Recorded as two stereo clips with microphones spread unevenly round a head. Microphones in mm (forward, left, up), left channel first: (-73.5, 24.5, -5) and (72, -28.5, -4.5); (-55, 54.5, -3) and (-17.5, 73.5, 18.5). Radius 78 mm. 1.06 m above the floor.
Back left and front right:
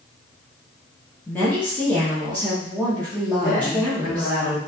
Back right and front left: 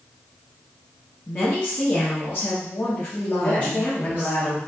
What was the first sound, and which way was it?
A woman speaking, 125° right.